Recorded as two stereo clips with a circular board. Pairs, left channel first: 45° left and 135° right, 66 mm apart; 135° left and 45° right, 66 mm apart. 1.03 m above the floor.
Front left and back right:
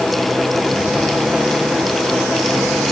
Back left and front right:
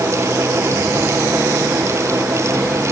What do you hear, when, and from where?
Only background noise.